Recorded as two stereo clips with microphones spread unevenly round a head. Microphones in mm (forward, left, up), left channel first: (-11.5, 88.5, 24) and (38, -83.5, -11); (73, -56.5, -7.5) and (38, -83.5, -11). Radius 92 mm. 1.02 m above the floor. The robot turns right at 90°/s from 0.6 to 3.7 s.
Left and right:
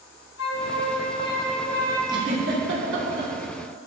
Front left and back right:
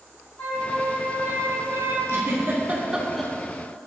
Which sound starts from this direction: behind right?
A giggle, at 2.1 s.